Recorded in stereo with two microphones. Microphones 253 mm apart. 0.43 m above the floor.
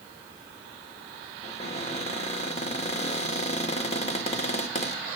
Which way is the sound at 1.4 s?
25° left (ahead or behind).